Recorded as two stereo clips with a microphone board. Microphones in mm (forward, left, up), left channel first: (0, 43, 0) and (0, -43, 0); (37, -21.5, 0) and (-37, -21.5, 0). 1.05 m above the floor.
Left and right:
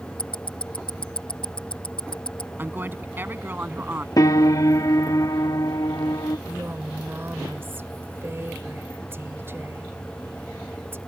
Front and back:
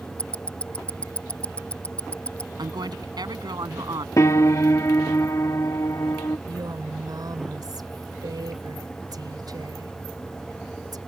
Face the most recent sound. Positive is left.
turn(degrees=-155)